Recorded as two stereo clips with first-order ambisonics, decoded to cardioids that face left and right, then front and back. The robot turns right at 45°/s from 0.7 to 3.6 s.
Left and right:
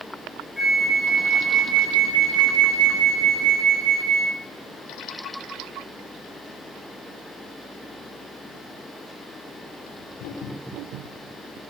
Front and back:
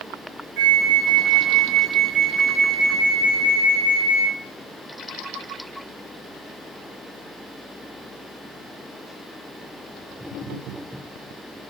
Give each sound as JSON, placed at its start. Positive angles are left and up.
{"t": 0.6, "sound": "a flute", "azimuth_deg": -175, "distance_m": 1.0}